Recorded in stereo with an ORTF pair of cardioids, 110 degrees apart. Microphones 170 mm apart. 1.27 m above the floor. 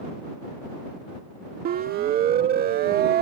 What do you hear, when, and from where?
1.6 s a siren: 60° right; by 3.2 s 65° right